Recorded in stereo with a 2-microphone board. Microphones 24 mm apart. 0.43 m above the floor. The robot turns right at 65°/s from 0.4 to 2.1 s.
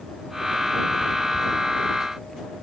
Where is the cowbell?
No cowbell in this recording.